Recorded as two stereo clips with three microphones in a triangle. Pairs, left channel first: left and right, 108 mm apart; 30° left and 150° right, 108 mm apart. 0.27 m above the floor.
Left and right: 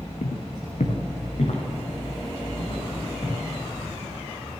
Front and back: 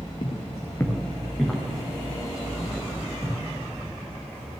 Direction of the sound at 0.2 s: 80° left.